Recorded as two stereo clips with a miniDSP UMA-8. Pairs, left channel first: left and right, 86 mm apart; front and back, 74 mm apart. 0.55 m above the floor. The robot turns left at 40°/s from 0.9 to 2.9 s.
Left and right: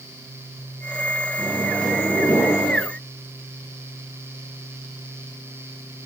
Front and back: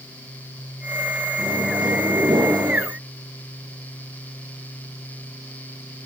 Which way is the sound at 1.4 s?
165° right.